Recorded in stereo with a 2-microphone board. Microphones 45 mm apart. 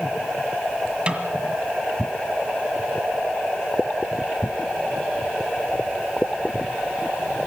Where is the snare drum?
25° right (ahead or behind), 1.9 m.